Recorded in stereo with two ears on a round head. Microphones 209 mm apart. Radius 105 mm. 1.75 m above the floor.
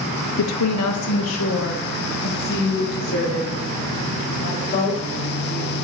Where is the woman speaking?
85° left, 1.1 m; by 5.0 s 60° left (ahead or behind), 6 m.